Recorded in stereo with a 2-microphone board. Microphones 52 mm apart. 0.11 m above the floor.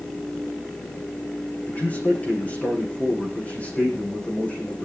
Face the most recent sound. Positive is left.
turn(degrees=30)  # may be behind; listen again after turning